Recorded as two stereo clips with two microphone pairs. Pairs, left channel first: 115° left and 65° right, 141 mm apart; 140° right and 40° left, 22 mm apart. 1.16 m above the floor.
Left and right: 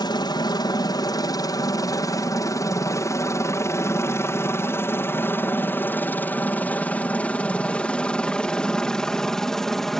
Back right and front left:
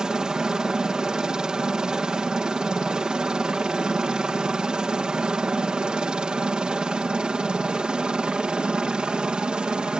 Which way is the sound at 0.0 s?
75° left.